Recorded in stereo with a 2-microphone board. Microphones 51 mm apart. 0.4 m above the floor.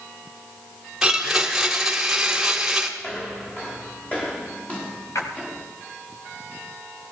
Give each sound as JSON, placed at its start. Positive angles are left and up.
{"t": 1.0, "sound": "a blender", "side_deg": -10, "distance_m": 1.6}
{"t": 3.0, "sound": "footsteps", "side_deg": 25, "distance_m": 5.5}
{"t": 5.2, "sound": "a splash", "side_deg": 65, "distance_m": 2.0}